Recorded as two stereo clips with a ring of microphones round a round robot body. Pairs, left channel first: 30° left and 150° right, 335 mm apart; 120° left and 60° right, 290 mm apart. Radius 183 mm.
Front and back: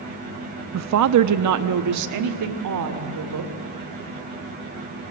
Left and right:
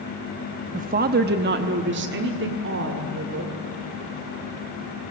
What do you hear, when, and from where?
0.7 s a woman speaking: 120° right, 0.7 m; by 3.5 s 115° right, 2.5 m